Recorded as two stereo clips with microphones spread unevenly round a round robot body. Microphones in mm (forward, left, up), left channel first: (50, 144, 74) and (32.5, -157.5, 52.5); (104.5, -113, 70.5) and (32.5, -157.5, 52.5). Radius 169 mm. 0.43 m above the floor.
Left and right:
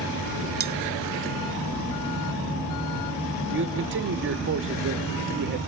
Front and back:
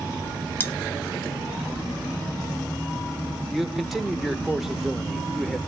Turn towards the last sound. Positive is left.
turn(degrees=-70)